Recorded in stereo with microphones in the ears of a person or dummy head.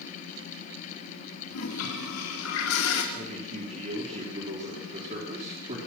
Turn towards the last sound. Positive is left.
turn(degrees=-35)  # may be behind; listen again after turning